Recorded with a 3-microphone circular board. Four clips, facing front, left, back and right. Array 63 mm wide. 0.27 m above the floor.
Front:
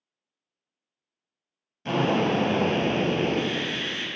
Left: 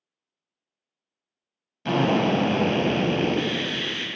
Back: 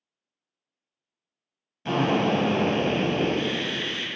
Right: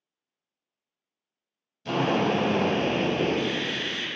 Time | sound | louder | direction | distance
1.9 | a drill | left 3 dB, back 1 dB | 95° left | 0.5 m